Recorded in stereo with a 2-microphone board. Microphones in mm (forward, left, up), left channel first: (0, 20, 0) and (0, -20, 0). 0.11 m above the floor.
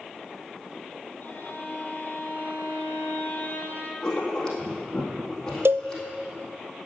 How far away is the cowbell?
About 0.6 m.